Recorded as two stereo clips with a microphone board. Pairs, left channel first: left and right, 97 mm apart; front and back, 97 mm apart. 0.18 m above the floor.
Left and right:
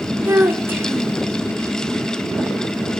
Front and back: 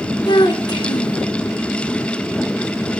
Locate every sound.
0.2 s a child speaking: 25° right, 1.5 m